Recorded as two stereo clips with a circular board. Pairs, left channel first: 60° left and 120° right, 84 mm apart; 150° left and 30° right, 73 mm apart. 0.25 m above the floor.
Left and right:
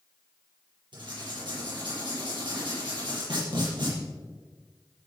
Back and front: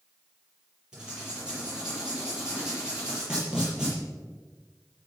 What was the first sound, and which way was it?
Writing, 110° right.